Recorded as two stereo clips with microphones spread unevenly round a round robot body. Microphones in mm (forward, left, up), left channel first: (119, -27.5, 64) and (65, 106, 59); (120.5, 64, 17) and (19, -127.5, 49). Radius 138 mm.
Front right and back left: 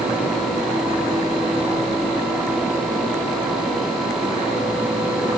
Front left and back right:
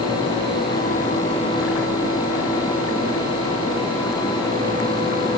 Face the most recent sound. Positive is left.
No sound to turn to.